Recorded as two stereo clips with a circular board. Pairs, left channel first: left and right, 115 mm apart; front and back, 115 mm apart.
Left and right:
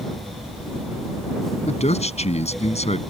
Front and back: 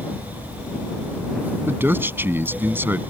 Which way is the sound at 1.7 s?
110° left.